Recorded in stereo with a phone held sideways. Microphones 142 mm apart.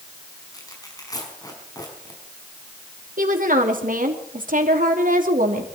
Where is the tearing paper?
25° left (ahead or behind), 5 m.